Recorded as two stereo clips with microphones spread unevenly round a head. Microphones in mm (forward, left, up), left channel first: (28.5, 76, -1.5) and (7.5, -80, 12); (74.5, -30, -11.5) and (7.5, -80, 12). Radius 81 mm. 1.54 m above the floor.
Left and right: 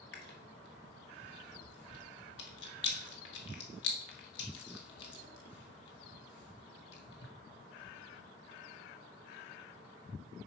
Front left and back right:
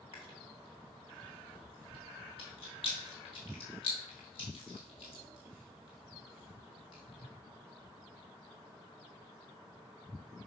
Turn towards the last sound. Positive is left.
turn(degrees=85)